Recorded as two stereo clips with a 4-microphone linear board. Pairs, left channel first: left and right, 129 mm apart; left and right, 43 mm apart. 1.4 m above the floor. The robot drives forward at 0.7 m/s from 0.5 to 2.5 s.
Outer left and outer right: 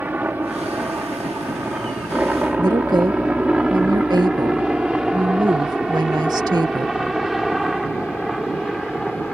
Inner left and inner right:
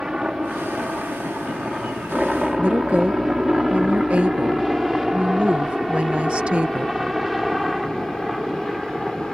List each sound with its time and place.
0.0 s a helicopter: 15° right (ahead or behind); by 9.3 s centre (ahead or behind)
2.6 s a woman speaking: 35° right (ahead or behind)